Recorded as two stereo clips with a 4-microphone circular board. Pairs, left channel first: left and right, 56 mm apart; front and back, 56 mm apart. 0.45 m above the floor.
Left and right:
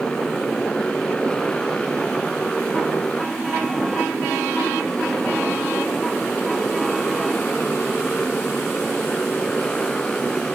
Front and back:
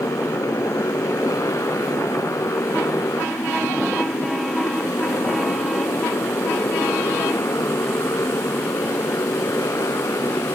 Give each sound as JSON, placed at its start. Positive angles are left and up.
{"t": 0.0, "sound": "a motorcycle", "azimuth_deg": 15}